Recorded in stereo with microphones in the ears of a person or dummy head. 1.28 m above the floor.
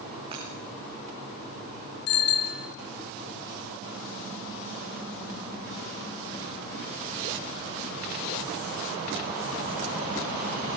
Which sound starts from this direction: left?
A bicycle bell, at 2.1 s.